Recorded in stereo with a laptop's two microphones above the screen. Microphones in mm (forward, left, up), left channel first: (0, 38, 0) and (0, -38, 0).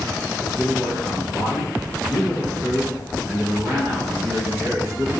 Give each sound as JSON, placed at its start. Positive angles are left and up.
{"t": 0.4, "sound": "a man speaking", "side_deg": -40, "distance_m": 0.9}